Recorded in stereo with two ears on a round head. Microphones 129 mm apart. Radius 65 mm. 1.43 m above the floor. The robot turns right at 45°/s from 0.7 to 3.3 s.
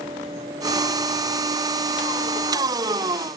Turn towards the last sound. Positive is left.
No sound to turn to.